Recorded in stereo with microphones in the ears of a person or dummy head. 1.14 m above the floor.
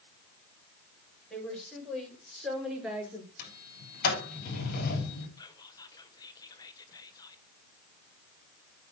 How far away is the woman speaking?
About 5.5 m.